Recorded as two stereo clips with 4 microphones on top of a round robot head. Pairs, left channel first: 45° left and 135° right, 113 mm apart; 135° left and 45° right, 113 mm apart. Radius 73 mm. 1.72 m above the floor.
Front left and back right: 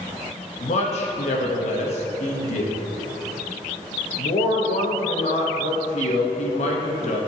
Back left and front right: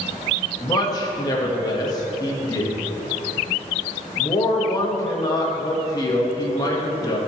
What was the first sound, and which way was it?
A man speaking, 80° left.